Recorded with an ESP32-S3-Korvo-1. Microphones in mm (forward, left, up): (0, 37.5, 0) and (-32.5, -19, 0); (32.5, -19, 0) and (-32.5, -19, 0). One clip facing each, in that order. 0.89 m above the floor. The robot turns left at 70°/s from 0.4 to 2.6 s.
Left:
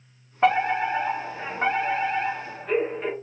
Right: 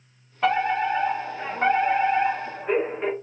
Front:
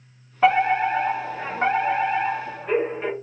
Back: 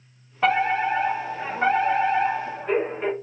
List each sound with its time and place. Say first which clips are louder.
0.4 s a fire alarm: left 1 dB, front 3 dB; 70° left, 1.6 m; by 3.1 s 85° right, 1.6 m